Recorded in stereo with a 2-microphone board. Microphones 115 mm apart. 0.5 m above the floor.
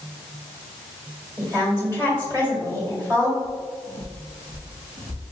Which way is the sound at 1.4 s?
35° right (ahead or behind).